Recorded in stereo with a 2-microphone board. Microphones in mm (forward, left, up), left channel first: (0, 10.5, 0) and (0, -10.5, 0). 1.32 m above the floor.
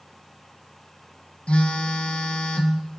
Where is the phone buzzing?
65° left (ahead or behind), 0.6 m.